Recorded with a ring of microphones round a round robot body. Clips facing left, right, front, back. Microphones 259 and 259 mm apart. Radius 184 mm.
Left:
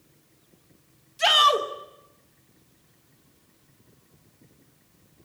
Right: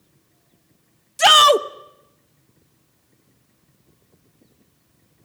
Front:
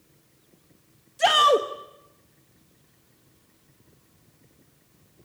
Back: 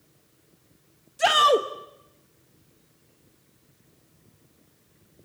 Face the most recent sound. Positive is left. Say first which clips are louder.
# right 8 dB, even
turn(degrees=-95)